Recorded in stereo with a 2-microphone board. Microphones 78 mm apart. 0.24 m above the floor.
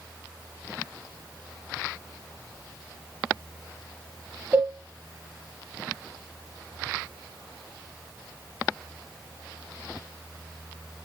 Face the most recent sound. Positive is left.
turn(degrees=-25)  # may be behind; listen again after turning